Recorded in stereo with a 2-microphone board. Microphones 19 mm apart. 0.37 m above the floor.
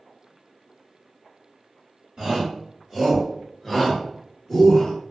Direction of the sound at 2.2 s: 35° right (ahead or behind).